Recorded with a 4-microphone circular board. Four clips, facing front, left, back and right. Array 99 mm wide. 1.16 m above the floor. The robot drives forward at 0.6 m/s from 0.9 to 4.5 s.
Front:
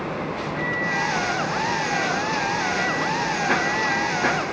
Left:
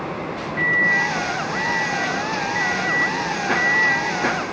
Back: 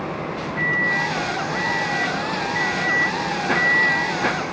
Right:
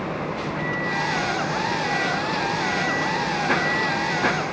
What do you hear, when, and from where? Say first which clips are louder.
0.6 s a microwave: left 9 dB, back 4 dB; 125° left, 3.5 m; by 4.2 s 145° left, 5 m